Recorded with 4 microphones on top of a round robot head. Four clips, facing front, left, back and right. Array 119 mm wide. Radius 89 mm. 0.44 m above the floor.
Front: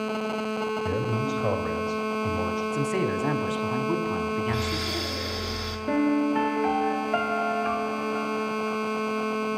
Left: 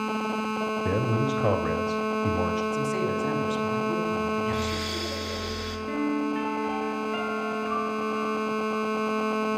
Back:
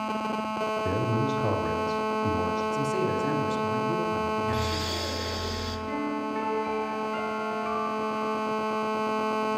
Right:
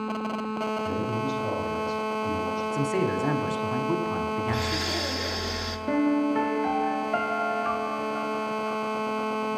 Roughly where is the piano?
Ahead right.